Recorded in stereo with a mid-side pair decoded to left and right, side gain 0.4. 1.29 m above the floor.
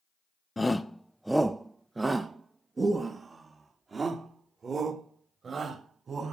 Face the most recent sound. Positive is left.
turn(degrees=-50)